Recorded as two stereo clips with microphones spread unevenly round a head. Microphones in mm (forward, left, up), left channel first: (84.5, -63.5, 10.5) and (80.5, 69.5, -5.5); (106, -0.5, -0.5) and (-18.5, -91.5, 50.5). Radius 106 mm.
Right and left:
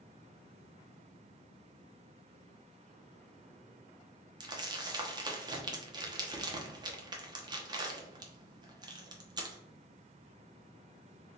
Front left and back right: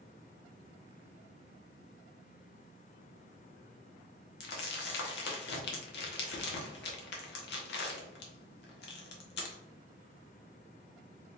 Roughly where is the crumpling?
Ahead left.